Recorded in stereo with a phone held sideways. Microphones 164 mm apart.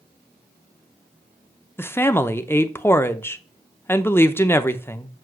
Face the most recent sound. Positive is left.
turn(degrees=15)  # may be behind; listen again after turning